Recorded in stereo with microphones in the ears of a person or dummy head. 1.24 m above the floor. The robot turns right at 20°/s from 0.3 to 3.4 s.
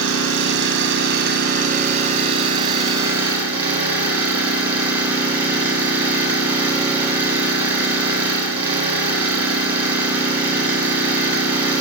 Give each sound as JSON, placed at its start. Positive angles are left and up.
{"t": 0.0, "sound": "an engine running", "azimuth_deg": -75, "distance_m": 1.6}